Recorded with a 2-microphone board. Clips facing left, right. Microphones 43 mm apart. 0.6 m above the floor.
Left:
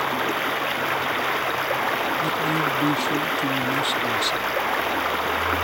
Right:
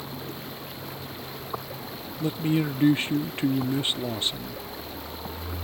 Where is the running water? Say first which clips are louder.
Left 14 dB; 70° left (ahead or behind).